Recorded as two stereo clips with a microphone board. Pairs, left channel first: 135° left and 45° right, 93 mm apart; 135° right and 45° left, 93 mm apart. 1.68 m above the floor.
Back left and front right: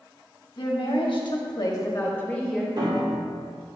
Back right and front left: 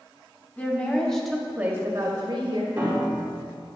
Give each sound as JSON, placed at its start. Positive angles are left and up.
{"t": 0.6, "sound": "a woman speaking", "azimuth_deg": 160, "distance_m": 1.6}
{"t": 2.8, "sound": "a piano", "azimuth_deg": -25, "distance_m": 1.8}